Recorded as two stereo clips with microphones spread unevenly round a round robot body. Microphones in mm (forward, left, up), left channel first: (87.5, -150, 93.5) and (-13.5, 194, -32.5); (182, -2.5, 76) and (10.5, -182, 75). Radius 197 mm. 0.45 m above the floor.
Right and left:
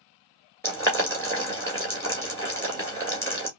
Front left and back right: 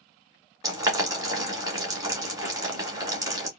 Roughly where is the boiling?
Behind.